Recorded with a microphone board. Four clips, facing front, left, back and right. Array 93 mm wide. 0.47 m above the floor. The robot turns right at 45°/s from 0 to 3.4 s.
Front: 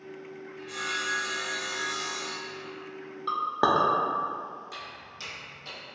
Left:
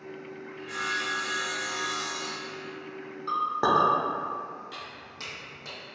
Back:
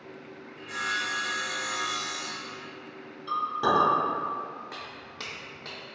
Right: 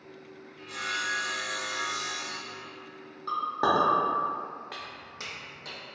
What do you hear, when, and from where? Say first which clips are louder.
0.6 s sawing: left 2 dB, back 3 dB; 115° left, 0.8 m; by 2.7 s 150° right, 0.8 m
3.3 s a clink: left 2 dB, front 1 dB; straight ahead, 0.5 m; by 3.9 s 5° left, 0.5 m
4.7 s footsteps: even, back 1 dB; 125° right, 0.8 m; by 5.8 s 150° left, 1.0 m